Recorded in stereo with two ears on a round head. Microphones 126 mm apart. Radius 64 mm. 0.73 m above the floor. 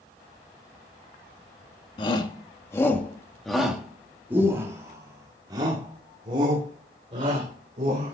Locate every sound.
2.0 s a shout: 35° left (ahead or behind), 1.5 m; by 8.1 s 45° right (ahead or behind), 3.5 m